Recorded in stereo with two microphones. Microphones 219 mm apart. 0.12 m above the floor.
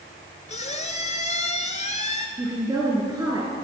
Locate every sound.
0.5 s a squeak: 35° left (ahead or behind), 0.9 m
2.4 s a woman speaking: 20° right (ahead or behind), 1.8 m